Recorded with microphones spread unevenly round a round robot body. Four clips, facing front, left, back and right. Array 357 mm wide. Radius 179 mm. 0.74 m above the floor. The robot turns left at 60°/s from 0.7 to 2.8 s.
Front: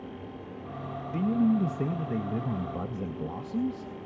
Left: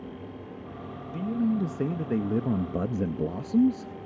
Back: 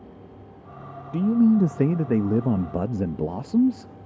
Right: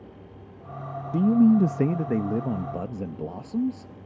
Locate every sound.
1.1 s a man speaking: 105° right, 0.5 m; by 4.1 s 155° left, 0.5 m